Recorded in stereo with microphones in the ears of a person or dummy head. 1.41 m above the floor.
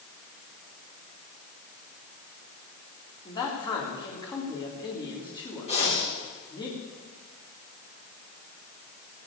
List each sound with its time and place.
3.2 s a man speaking: 25° left (ahead or behind), 3 m
5.7 s breathing: 35° left (ahead or behind), 3 m